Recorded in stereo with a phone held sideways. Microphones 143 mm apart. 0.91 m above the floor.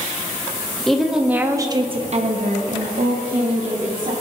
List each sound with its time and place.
0.9 s a woman speaking: centre (ahead or behind), 1.6 m; by 4.1 s 55° right (ahead or behind), 2.5 m